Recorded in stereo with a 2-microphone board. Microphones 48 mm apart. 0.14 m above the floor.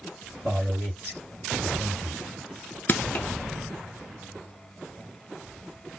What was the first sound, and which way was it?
A man speaking, 25° left (ahead or behind).